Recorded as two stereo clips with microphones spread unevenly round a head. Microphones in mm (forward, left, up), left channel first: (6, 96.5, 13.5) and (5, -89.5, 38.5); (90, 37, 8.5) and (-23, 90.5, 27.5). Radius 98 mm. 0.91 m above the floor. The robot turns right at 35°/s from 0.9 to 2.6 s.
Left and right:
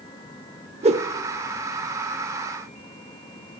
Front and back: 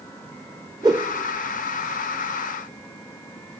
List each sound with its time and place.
0.8 s a whoosh: 140° right, 0.9 m; by 1.1 s 135° right, 0.9 m